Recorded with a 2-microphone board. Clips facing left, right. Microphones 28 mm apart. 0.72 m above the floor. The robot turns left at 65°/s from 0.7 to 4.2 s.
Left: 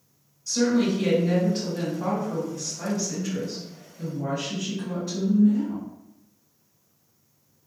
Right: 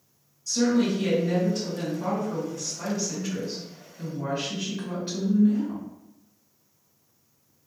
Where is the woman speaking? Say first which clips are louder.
Left 1 dB; 155° left, 1.4 m; by 5.8 s 70° right, 1.4 m.